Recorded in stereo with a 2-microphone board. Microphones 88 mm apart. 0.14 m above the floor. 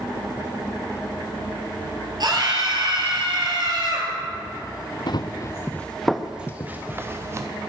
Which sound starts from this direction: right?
A scream, at 2.2 s.